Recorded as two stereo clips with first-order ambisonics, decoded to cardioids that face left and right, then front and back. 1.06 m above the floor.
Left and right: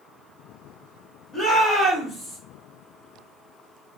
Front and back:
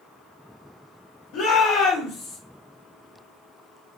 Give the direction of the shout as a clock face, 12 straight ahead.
11 o'clock.